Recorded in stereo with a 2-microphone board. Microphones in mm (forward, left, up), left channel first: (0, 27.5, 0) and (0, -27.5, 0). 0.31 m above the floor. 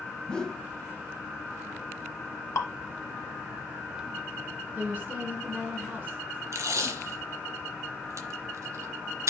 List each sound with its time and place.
0.3 s a whoosh: 15° left (ahead or behind), 0.6 m
2.5 s dripping: 60° left (ahead or behind), 0.9 m
4.8 s a woman speaking: 35° right (ahead or behind), 3.5 m
6.5 s tape being pulled: 65° right (ahead or behind), 0.9 m